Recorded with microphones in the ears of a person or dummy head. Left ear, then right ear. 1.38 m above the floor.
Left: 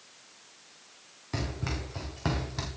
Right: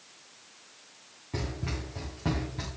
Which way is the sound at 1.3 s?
65° left (ahead or behind).